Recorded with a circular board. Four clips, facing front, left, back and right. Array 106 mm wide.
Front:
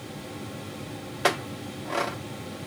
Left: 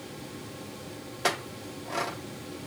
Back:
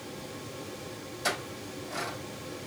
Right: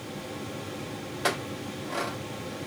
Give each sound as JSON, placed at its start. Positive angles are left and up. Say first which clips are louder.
{"t": 1.2, "sound": "a clink", "louder": "even, front 8 dB", "azimuth_deg": 5, "distance_m": 0.6}